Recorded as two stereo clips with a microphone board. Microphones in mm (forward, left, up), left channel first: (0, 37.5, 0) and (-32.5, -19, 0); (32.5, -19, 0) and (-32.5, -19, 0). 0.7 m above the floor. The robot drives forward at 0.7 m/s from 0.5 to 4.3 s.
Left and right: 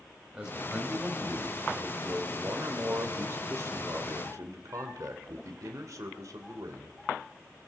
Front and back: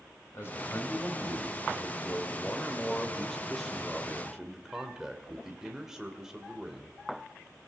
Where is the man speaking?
40° right, 3 m; by 7.0 s 100° right, 2 m.